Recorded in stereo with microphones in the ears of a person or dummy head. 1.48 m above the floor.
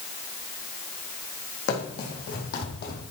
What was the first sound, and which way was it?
Running footsteps, 60° left (ahead or behind).